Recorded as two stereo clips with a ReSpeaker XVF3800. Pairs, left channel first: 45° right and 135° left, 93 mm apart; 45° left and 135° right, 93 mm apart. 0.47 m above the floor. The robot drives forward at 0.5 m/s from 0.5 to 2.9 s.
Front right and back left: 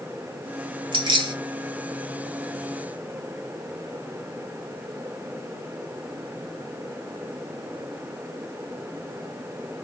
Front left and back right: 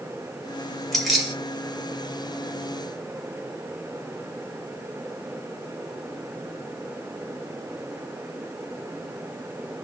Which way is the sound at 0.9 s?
135° left.